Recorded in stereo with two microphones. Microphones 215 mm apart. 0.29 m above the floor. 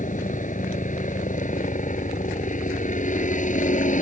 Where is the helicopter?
35° left (ahead or behind).